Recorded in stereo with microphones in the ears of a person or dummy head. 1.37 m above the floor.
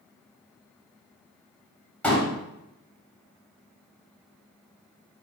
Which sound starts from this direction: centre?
A pop, at 2.0 s.